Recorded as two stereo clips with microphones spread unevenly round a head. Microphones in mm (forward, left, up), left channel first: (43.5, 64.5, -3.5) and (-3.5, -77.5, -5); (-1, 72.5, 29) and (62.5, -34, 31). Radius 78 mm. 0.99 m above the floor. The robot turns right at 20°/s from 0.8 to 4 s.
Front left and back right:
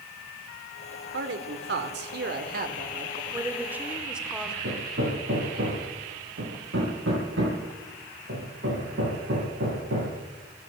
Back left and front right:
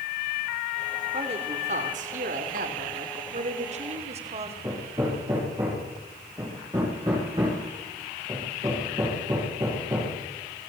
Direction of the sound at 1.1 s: 110° right.